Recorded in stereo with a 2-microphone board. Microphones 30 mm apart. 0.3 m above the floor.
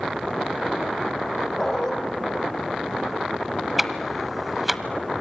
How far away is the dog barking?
About 6.5 m.